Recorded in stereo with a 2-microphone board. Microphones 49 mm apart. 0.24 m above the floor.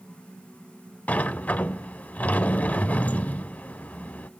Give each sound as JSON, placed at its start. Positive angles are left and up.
{"t": 1.1, "sound": "a sliding door", "side_deg": 35, "distance_m": 0.5}